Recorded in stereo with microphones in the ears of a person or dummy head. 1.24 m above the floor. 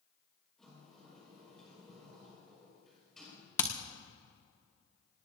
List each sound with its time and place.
0.6 s a sliding door: 5° left (ahead or behind), 5 m
3.6 s hammering: 20° left (ahead or behind), 1.4 m